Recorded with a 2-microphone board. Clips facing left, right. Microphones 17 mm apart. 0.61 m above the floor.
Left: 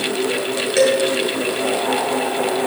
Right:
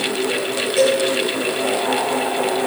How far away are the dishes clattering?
About 7.5 m.